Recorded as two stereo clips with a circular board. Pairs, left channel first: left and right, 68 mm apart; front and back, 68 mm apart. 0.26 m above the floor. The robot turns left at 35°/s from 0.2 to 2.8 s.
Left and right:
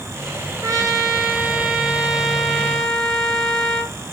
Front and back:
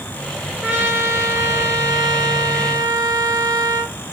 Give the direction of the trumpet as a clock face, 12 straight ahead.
4 o'clock.